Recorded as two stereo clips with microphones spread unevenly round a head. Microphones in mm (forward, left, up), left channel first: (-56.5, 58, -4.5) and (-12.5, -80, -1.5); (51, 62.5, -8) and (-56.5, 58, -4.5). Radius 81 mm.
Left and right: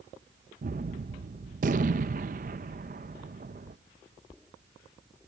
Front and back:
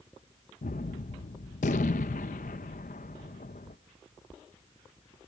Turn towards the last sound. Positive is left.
turn(degrees=-25)